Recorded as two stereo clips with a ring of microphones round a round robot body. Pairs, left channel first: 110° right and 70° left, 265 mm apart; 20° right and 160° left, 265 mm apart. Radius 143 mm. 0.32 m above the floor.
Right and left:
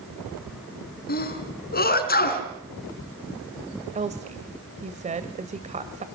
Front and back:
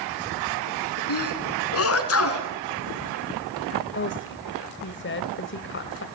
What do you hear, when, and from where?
1.1 s a sneeze: 55° right, 4.5 m
4.0 s a woman speaking: 10° left, 1.4 m